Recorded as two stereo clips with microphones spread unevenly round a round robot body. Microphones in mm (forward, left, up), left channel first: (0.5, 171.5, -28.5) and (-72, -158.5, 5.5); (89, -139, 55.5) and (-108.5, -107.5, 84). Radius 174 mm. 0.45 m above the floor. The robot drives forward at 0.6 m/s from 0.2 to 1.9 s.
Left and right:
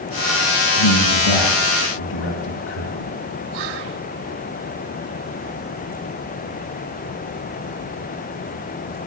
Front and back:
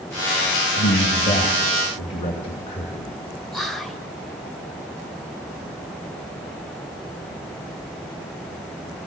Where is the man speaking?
45° left, 3 m; by 3.2 s 60° left, 2.5 m.